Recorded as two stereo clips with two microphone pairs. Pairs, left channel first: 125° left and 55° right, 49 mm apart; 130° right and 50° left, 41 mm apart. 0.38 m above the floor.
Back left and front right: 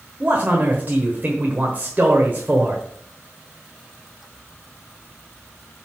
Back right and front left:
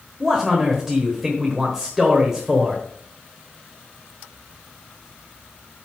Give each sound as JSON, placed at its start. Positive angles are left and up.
{"t": 0.2, "sound": "a man speaking", "azimuth_deg": -25, "distance_m": 1.4}